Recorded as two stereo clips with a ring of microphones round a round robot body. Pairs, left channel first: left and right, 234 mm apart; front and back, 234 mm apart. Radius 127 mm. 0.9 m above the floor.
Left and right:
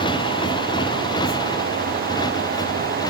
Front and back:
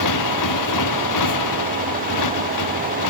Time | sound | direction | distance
0.0 | a motorcycle | 15° left | ?